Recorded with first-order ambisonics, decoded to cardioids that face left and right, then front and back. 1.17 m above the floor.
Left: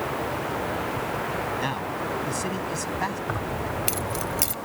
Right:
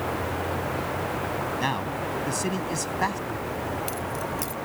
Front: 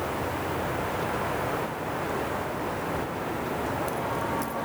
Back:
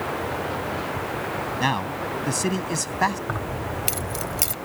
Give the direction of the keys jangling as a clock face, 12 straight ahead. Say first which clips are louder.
Left 1 dB, even; 7 o'clock.